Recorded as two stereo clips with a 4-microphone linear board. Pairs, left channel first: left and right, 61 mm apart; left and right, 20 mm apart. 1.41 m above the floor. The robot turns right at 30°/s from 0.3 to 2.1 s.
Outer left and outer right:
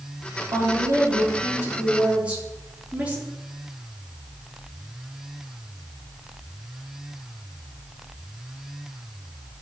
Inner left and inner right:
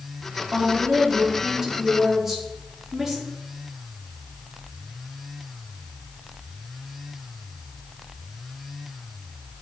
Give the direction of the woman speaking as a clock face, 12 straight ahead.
2 o'clock.